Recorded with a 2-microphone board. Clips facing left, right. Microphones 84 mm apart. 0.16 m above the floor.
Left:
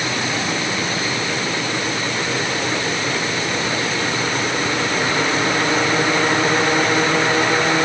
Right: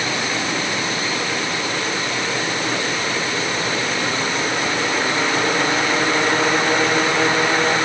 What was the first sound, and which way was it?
Only background noise.